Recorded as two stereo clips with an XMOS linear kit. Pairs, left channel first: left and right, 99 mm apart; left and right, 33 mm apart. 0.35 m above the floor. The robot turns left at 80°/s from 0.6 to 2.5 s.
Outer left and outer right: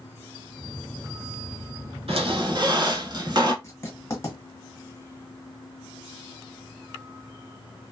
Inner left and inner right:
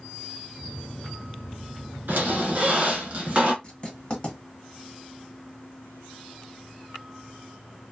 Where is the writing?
25° left (ahead or behind), 1.3 m.